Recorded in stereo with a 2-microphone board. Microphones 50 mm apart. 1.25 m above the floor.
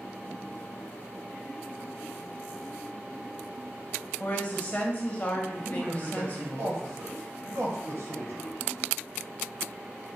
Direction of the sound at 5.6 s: 65° right (ahead or behind).